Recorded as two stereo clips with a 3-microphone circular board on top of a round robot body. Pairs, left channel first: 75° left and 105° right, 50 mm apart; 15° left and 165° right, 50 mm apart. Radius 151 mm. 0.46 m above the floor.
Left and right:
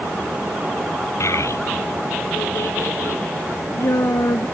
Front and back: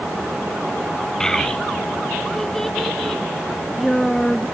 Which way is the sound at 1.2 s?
95° left.